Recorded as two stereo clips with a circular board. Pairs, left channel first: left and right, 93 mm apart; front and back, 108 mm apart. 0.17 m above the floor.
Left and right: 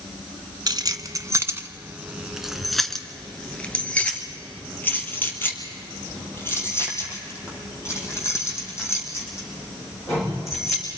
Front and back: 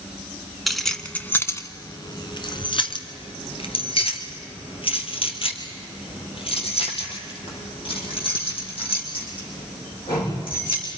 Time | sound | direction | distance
0.7 | keys jangling | 90° right | 1.1 m